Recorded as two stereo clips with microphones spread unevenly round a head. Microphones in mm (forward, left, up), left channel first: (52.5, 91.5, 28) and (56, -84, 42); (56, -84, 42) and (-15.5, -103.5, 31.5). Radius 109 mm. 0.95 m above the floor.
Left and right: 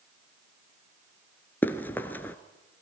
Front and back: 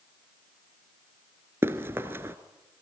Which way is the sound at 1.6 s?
170° left.